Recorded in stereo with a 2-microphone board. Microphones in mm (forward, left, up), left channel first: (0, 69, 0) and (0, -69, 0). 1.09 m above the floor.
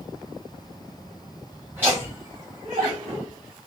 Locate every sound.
1.7 s laughter: 15° right (ahead or behind), 2.5 m; by 3.3 s 50° right (ahead or behind), 1.2 m